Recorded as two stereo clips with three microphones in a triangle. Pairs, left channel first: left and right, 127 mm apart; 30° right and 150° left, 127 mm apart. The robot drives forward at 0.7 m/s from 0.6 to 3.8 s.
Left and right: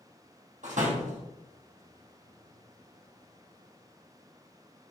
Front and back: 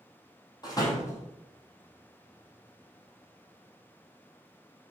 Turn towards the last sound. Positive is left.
turn(degrees=-130)